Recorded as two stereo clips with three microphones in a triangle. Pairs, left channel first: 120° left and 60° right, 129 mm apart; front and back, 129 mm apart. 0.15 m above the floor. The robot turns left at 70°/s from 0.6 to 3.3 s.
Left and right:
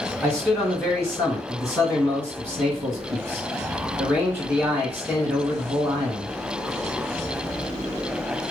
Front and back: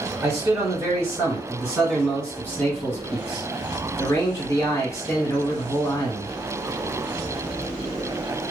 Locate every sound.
0.2 s a man speaking: straight behind, 1.6 m; by 6.3 s 5° right, 1.6 m